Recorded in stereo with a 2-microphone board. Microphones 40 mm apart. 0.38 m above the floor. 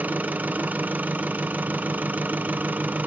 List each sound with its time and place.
0.0 s an engine running: 45° right (ahead or behind), 0.8 m